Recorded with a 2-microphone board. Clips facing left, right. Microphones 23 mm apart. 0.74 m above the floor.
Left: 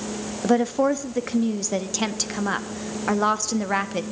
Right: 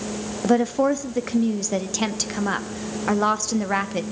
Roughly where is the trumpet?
I don't hear a trumpet.